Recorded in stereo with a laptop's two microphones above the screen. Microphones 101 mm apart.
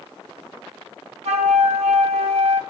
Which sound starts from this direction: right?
A flute, at 1.2 s.